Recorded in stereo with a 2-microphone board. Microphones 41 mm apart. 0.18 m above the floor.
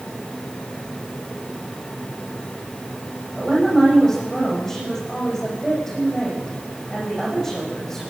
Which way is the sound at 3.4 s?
10° left (ahead or behind).